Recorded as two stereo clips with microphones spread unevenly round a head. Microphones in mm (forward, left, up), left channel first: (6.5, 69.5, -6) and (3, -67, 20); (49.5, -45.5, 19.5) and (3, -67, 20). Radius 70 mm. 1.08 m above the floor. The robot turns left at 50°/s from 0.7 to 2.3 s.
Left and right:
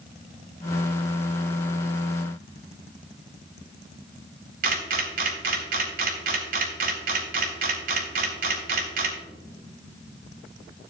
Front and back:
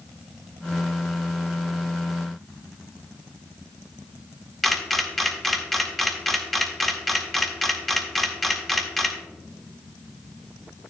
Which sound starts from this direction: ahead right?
A camera shutter, at 4.6 s.